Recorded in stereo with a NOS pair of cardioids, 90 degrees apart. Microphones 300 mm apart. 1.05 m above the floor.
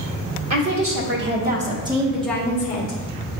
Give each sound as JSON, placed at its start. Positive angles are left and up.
{"t": 0.5, "sound": "a woman speaking", "azimuth_deg": -50, "distance_m": 1.4}